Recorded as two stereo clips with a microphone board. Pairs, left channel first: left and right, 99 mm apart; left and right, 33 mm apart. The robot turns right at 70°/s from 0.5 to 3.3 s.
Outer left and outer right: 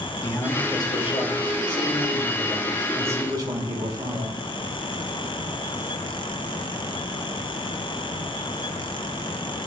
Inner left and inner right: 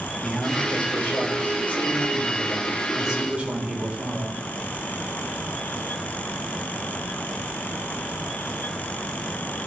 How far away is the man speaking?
About 4 m.